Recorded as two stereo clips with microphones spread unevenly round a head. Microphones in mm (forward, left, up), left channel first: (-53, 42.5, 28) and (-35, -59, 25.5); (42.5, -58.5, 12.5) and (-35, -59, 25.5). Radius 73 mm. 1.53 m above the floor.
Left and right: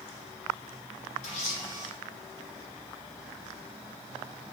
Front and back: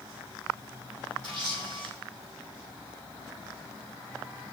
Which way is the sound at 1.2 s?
110° left.